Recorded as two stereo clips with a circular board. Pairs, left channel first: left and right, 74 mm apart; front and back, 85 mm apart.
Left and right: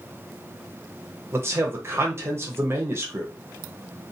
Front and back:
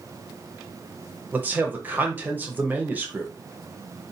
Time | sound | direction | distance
1.3 | a man speaking | 125° right | 0.6 m